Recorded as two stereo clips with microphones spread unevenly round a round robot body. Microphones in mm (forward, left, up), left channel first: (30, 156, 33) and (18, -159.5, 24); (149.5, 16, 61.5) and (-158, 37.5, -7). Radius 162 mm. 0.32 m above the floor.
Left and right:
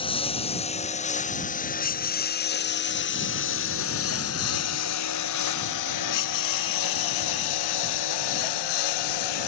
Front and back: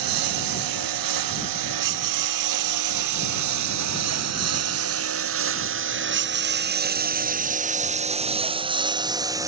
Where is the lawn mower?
165° left; by 9.5 s 95° left.